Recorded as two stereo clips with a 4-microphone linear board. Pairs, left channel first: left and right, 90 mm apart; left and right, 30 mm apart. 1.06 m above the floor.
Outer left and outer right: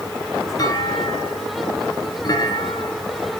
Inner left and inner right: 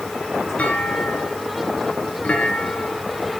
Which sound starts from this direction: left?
A clunk, at 0.6 s.